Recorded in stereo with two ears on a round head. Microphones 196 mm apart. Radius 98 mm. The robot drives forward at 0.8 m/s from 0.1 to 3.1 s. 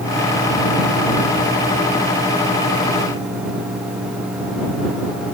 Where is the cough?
I don't hear a cough.